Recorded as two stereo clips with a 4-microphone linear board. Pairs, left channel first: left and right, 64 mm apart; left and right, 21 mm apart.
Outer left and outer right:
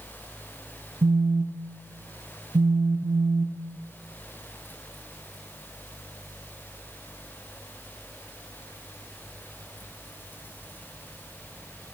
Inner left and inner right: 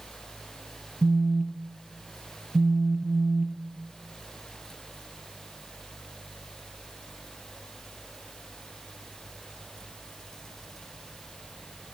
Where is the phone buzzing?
75° right (ahead or behind), 0.5 m.